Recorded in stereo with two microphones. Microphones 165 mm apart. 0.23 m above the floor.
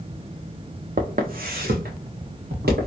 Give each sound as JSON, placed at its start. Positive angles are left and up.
{"t": 1.0, "sound": "footsteps", "side_deg": -60, "distance_m": 0.7}